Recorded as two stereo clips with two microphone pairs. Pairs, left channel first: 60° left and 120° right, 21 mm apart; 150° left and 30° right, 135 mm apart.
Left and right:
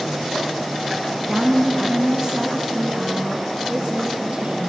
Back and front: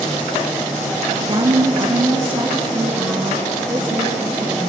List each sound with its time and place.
1.3 s a woman speaking: 55° right, 1.9 m; by 4.7 s 115° right, 4.5 m